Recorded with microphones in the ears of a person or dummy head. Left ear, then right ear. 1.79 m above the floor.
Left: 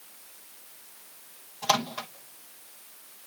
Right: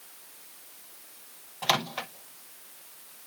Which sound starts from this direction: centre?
A microwave, at 1.6 s.